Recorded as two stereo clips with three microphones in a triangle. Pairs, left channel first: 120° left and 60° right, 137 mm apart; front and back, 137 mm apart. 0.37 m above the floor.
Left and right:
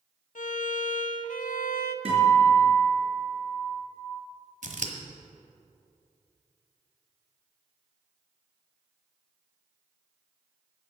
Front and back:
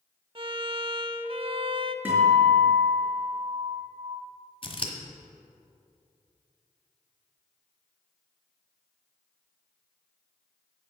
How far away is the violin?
About 0.6 m.